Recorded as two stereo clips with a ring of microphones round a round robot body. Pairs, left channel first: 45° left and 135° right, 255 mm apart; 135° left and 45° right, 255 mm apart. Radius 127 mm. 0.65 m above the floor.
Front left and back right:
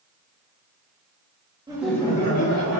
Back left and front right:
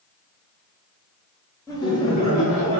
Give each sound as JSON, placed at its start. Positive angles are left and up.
{"t": 1.7, "sound": "laughter", "azimuth_deg": -175, "distance_m": 0.7}